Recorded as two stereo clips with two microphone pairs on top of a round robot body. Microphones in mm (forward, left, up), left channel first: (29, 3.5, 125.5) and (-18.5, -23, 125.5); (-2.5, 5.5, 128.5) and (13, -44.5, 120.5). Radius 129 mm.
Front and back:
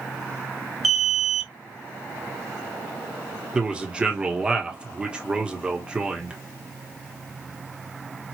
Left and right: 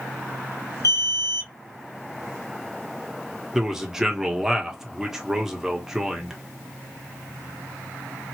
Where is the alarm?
125° left, 1.3 m.